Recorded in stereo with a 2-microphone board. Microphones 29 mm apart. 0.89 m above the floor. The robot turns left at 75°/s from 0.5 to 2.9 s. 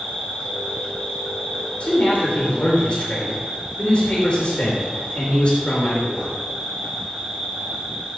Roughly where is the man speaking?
Behind left.